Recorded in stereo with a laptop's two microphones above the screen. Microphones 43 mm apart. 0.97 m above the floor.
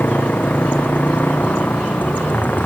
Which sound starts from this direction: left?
A motorcycle, at 0.0 s.